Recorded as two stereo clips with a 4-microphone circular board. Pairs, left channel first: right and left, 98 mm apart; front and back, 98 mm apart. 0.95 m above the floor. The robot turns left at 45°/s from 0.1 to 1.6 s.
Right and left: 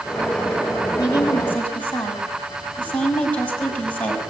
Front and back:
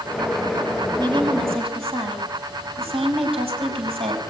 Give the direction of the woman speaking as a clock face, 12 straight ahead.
5 o'clock.